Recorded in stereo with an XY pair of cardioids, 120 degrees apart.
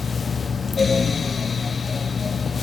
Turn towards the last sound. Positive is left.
turn(degrees=30)